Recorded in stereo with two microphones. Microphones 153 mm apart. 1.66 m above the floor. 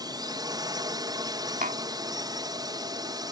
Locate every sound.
0.0 s a drone: 25° right (ahead or behind)
1.6 s tapping: 65° right (ahead or behind)